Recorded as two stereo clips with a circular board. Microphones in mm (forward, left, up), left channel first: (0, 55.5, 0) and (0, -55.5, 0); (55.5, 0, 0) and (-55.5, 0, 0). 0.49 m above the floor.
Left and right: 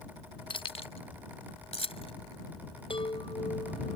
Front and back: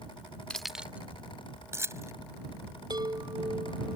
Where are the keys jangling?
80° left; by 2.1 s 120° left.